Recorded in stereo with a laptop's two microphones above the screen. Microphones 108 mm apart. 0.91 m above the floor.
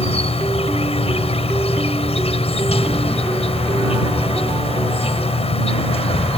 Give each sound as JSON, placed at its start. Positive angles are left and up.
{"t": 0.0, "sound": "an insect", "side_deg": 65}